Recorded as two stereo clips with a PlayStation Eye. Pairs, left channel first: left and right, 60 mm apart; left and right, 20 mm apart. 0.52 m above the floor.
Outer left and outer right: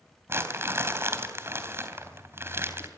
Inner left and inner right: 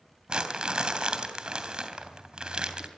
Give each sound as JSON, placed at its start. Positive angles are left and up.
{"t": 0.3, "sound": "crumpling", "side_deg": -40, "distance_m": 3.0}